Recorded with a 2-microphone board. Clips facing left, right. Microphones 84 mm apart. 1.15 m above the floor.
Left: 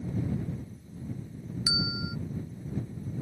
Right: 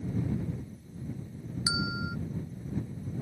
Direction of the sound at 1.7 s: 30° right (ahead or behind).